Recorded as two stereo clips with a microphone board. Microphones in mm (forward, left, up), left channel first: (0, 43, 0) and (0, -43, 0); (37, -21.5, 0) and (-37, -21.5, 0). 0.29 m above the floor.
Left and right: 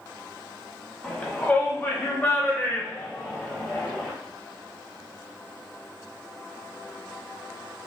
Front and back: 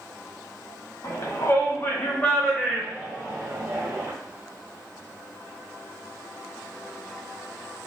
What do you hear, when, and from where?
1.0 s a shout: 20° left, 1.7 m; by 4.1 s 150° left, 1.4 m